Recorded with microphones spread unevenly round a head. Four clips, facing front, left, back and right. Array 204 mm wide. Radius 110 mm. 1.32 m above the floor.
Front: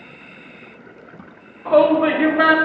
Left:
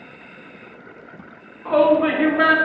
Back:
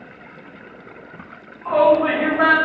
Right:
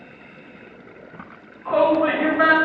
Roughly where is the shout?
Ahead left.